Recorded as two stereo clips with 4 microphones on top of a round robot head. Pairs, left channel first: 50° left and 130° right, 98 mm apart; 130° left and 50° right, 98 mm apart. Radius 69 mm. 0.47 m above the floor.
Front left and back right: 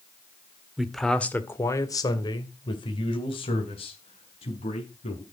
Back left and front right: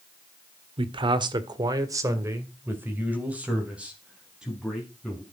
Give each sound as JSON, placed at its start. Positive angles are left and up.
{"t": 0.8, "sound": "a man speaking", "azimuth_deg": -45, "distance_m": 1.6}